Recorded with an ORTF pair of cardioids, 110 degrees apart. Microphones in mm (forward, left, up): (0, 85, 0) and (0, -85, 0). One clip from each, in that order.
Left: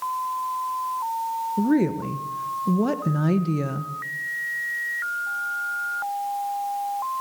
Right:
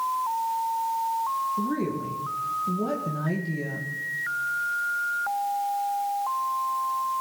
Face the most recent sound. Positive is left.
turn(degrees=45)